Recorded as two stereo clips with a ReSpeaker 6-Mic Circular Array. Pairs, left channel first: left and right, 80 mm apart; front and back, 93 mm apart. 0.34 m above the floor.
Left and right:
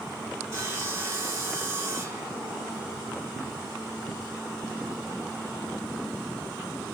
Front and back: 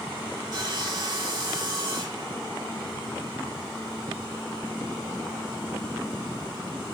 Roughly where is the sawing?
Behind right.